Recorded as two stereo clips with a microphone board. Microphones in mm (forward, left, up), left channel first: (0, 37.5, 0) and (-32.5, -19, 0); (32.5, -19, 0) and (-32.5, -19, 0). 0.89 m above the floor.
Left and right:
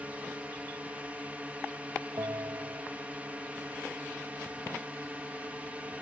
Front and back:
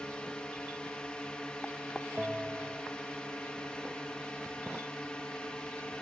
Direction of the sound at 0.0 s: 65° right.